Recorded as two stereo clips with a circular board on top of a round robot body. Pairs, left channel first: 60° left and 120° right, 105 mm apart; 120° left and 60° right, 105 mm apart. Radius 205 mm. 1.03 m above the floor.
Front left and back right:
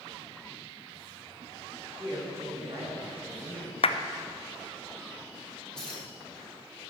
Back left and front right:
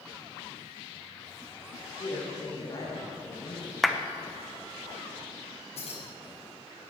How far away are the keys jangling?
About 4 m.